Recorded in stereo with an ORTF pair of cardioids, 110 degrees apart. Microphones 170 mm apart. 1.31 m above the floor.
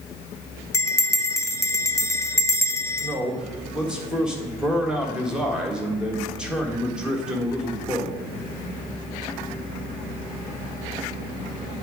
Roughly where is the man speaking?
Ahead.